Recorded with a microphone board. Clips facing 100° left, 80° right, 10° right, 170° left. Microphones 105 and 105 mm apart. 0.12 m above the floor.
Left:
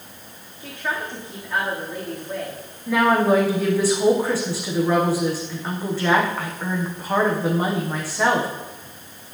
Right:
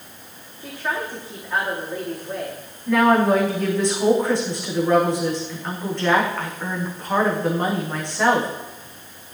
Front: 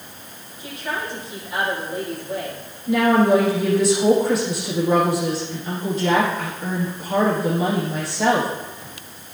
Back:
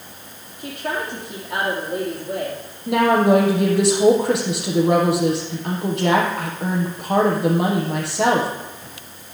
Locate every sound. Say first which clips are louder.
0.6 s a woman speaking: right 1 dB, back 2 dB; 160° right, 5.5 m
2.9 s a woman speaking: right 1 dB, back 1 dB; 175° right, 5 m